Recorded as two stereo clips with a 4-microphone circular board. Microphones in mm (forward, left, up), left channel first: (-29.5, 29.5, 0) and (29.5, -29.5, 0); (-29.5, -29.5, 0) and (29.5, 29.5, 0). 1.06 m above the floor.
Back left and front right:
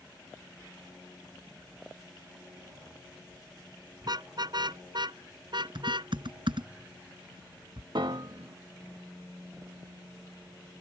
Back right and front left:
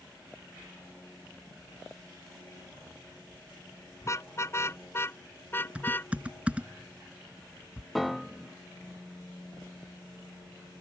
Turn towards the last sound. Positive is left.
turn(degrees=-45)